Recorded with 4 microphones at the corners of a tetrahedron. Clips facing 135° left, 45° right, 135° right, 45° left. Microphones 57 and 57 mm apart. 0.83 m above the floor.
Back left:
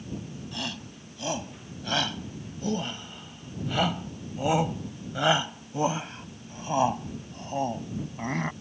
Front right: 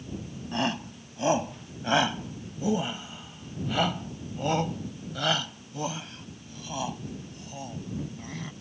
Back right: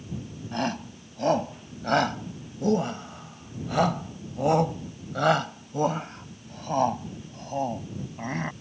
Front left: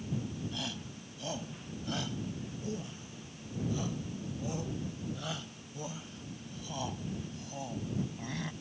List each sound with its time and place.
0.5 s a shout: 100° right; by 8.5 s 175° left